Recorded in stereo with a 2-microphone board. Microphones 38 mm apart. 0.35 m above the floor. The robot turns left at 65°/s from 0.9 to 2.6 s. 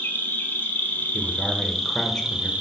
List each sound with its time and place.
0.0 s an insect: 70° left, 0.9 m; by 2.6 s 40° right, 0.9 m
1.1 s a man speaking: 5° left (ahead or behind), 0.9 m; by 2.5 s 20° left (ahead or behind), 0.9 m